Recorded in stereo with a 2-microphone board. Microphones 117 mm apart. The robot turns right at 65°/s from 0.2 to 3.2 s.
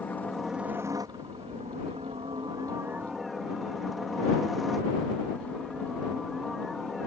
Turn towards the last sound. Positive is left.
turn(degrees=0)